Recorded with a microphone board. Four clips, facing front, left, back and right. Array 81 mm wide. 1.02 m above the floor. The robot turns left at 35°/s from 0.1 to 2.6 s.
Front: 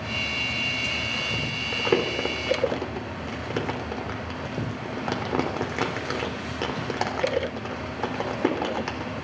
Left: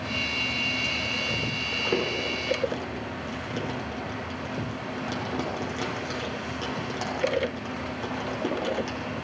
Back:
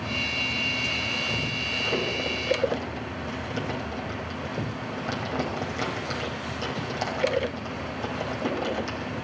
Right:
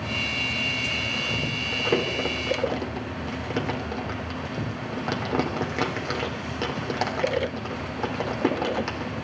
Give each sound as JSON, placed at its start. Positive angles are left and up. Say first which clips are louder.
{"t": 1.7, "sound": "crumpling", "louder": "right 3 dB, front 6 dB", "azimuth_deg": 0, "distance_m": 3.5}